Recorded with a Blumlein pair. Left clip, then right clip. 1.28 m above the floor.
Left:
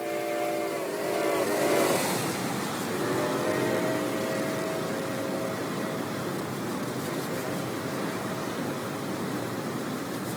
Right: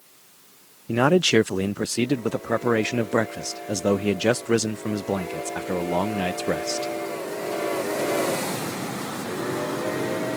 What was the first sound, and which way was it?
A man speaking, 45° right.